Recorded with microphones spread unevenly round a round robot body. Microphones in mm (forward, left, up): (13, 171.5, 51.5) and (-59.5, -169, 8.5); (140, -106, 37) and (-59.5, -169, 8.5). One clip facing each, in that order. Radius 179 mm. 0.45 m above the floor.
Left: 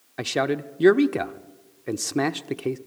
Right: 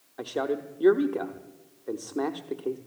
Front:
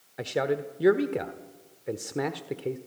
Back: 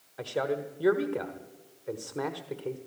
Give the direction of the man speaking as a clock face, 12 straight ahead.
9 o'clock.